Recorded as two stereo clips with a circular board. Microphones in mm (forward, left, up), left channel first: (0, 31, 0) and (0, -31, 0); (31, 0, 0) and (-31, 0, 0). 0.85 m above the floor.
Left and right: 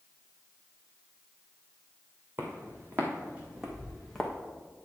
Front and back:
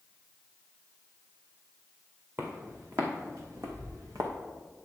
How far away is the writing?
I don't hear writing.